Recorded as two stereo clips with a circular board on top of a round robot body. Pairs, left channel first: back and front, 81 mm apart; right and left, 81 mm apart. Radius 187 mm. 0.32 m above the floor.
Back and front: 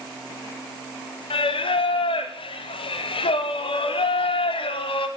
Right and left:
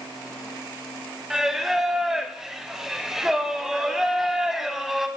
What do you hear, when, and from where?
1.3 s singing: 175° left, 0.7 m